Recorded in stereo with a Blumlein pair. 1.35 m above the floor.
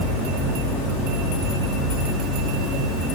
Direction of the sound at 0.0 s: Straight ahead.